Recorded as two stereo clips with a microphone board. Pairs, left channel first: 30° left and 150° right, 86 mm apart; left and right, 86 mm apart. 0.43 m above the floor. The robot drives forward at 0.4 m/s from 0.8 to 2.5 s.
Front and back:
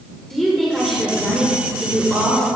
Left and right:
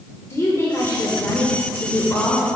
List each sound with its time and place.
0.3 s a woman speaking: 115° left, 1.5 m; by 2.5 s 140° left, 1.8 m